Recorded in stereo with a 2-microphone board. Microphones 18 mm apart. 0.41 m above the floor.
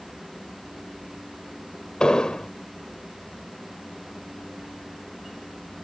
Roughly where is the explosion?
Left.